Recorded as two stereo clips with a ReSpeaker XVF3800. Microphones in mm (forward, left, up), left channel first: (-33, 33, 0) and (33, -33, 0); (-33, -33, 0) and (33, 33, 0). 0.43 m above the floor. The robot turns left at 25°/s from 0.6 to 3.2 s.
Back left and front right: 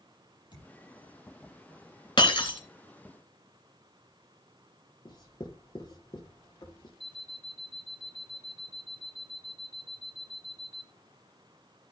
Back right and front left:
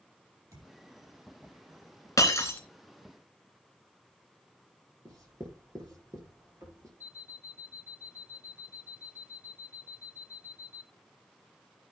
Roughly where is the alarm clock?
Ahead.